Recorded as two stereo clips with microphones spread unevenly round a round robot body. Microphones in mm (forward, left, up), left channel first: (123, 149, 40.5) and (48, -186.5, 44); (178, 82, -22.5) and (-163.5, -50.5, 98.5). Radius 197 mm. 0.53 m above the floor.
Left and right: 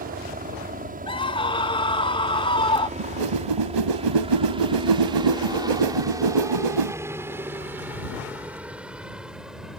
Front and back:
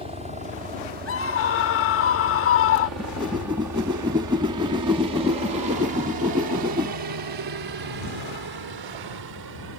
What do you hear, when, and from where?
0.0 s a helicopter: 65° right; by 9.8 s 170° left
1.1 s a scream: 5° left
3.0 s a whoosh: 90° right